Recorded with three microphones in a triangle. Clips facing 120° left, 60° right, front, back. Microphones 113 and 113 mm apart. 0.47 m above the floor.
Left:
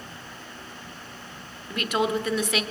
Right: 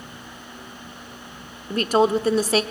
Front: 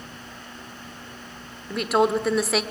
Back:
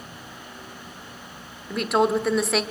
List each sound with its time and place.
1.7 s a woman speaking: 90° right, 1.1 m